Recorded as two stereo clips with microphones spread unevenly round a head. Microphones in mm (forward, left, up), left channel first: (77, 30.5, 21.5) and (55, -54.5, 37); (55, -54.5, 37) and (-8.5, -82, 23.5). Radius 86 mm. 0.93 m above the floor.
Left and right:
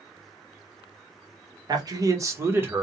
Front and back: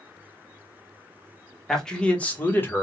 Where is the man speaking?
70° right, 1.2 m; by 2.8 s 30° right, 1.3 m.